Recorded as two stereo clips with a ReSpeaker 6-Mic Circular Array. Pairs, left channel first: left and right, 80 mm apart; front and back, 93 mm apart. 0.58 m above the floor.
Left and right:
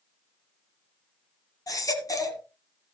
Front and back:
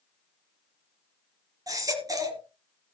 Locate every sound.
1.7 s a baby crying: 130° left, 1.8 m